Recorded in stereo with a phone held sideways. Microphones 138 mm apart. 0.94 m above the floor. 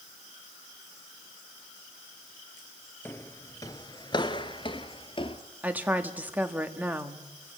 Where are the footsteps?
15° left (ahead or behind), 1.1 m; by 5.4 s 40° left (ahead or behind), 1.4 m.